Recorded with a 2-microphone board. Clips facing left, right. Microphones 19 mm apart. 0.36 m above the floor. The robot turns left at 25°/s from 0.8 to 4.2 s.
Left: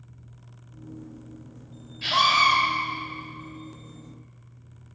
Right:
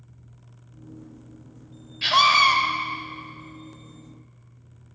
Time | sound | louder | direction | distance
2.0 | a scream | right 3 dB | 35° right (ahead or behind) | 1.4 m